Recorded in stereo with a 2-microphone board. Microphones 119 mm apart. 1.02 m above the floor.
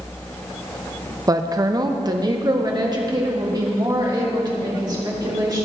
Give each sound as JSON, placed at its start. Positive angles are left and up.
{"t": 1.3, "sound": "a woman speaking", "side_deg": -30, "distance_m": 0.5}